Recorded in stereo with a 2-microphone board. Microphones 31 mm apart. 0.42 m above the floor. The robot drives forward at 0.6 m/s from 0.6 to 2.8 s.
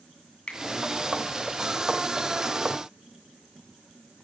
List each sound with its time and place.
0.5 s a finger snap: 30° left (ahead or behind), 2.5 m